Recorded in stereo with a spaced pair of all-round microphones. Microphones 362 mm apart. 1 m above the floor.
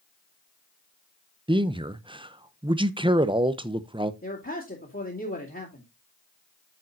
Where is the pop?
No pop in this recording.